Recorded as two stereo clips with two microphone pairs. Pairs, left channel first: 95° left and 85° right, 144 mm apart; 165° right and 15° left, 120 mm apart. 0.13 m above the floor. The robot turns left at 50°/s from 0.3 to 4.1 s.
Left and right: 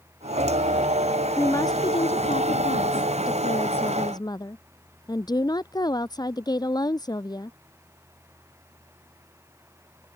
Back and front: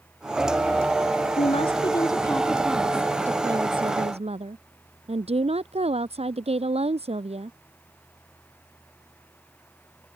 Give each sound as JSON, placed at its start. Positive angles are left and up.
{"t": 1.4, "sound": "a woman speaking", "azimuth_deg": 170}